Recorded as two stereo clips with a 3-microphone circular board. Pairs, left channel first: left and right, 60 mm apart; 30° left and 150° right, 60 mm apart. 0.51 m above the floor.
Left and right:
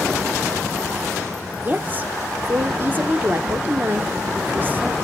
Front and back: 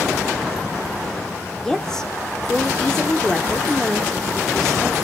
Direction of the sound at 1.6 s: 45° right.